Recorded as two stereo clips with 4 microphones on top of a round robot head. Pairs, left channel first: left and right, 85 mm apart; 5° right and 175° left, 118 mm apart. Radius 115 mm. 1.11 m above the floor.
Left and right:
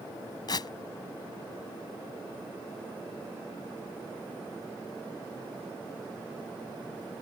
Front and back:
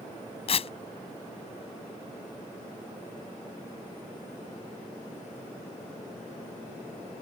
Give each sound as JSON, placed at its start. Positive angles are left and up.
{"t": 0.5, "sound": "tearing paper", "azimuth_deg": 35}